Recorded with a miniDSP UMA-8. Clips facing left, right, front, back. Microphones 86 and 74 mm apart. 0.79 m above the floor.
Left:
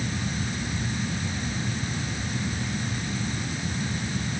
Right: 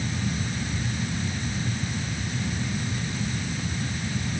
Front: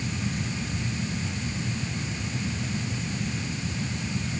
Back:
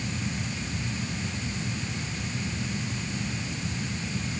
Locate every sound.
Only background noise.